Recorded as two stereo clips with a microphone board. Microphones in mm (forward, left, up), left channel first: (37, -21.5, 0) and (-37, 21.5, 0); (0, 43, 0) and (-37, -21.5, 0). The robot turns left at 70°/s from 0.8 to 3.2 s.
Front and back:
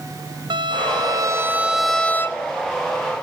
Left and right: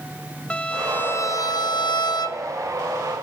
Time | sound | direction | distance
0.5 | a violin | 135° left | 1.0 m